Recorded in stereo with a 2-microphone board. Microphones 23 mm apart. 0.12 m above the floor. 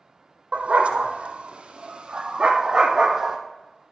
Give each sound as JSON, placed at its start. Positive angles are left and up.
{"t": 0.5, "sound": "a dog barking", "side_deg": -65, "distance_m": 2.0}